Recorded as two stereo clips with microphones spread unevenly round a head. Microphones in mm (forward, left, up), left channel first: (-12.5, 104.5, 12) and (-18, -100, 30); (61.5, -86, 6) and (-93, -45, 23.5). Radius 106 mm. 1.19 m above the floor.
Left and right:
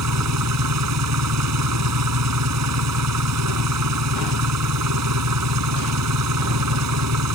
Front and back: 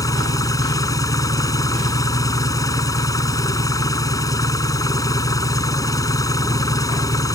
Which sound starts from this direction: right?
An engine running, at 0.0 s.